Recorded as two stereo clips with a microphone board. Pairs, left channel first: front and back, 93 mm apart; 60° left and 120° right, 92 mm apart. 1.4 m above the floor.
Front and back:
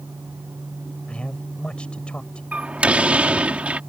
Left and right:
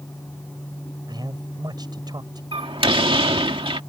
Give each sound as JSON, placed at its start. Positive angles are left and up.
{"t": 1.1, "sound": "a man speaking", "azimuth_deg": -80}
{"t": 2.5, "sound": "a door slam", "azimuth_deg": -105}